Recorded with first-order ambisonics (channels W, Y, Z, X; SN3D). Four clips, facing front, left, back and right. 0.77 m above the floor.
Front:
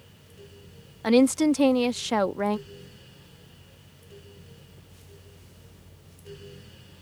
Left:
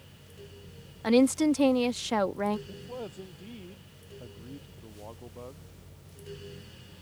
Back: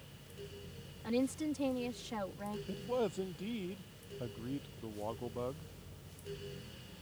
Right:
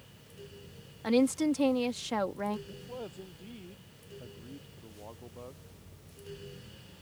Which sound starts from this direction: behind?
A man speaking, at 2.7 s.